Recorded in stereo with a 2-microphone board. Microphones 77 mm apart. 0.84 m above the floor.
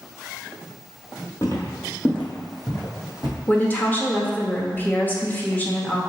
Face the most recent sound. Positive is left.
turn(degrees=20)  # may be behind; listen again after turning